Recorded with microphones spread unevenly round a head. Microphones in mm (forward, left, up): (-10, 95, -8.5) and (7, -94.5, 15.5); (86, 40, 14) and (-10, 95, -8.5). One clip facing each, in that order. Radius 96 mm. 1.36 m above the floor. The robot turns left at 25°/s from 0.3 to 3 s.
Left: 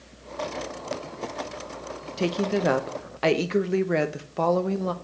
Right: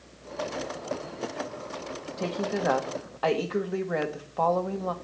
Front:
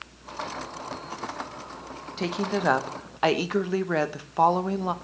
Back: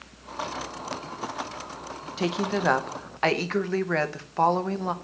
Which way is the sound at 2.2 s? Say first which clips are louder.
Left 5 dB, back 1 dB; 75° left.